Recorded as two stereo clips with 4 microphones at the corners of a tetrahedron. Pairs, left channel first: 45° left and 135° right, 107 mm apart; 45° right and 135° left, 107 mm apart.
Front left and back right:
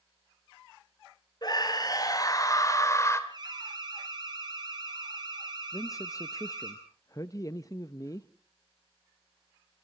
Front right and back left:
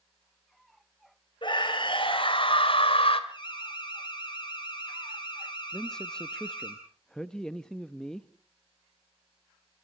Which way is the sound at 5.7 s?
30° left.